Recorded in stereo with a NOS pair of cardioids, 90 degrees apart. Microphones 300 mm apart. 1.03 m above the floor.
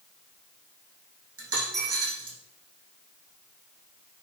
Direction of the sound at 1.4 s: 50° right.